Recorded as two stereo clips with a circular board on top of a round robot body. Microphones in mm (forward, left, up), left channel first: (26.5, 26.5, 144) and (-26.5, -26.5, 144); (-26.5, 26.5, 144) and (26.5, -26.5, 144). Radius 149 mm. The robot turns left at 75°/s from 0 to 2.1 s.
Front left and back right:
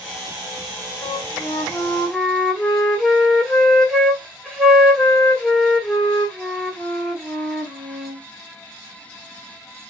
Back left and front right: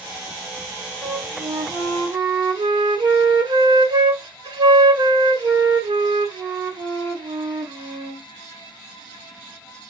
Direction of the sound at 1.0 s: 30° left.